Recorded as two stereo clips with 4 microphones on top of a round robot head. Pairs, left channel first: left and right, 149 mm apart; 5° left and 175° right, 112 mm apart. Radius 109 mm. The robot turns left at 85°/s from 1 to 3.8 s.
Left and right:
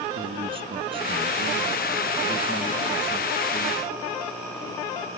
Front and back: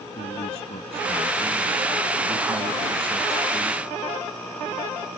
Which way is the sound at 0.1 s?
40° right.